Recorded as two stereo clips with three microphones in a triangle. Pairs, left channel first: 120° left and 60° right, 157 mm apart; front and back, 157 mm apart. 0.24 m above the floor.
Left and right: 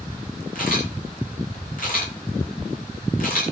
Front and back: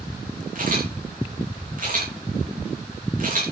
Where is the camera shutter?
150° left, 9 m.